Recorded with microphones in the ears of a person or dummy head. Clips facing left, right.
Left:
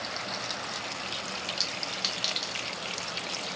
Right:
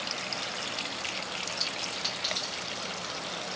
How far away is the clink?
About 1.2 m.